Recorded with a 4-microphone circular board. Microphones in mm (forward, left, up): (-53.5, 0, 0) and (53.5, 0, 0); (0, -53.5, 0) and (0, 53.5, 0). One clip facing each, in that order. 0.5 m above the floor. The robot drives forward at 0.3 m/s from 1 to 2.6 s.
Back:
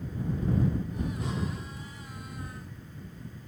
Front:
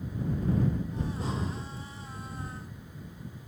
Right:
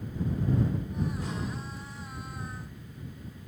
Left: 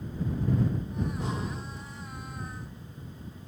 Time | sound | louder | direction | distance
1.0 | breathing | even, left 3 dB | 35° left | 1.2 m